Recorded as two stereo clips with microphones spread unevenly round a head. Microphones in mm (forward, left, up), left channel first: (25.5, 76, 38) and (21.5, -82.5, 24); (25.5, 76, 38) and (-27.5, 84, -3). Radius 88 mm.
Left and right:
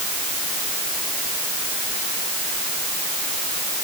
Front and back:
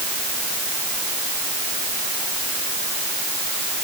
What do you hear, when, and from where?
Only background noise.